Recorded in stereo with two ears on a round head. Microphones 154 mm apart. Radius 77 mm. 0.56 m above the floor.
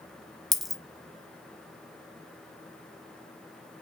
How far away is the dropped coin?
About 1.1 m.